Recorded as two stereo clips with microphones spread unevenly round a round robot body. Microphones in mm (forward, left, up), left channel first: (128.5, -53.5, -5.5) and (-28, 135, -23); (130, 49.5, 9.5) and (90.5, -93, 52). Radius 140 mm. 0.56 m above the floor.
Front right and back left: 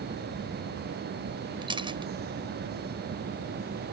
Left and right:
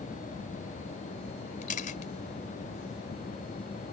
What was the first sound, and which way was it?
A camera shutter, 60° left.